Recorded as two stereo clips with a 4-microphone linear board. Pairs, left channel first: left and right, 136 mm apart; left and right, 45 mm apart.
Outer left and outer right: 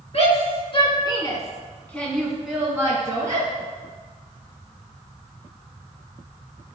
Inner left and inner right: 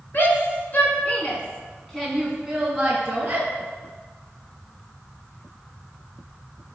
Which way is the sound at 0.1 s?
50° left (ahead or behind).